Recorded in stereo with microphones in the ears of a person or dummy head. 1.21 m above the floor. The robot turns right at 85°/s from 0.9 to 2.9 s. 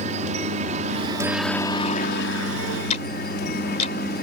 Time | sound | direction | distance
0.0 | a helicopter | 45° right | ?
2.9 | ticking | 40° left (ahead or behind) | ?